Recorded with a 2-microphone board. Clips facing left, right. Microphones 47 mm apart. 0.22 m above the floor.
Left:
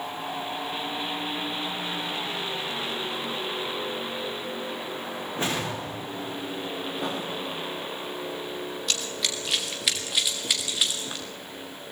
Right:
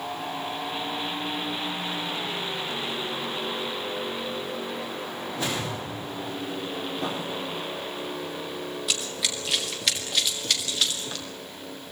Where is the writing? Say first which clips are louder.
Even; 10° left (ahead or behind), 9 m.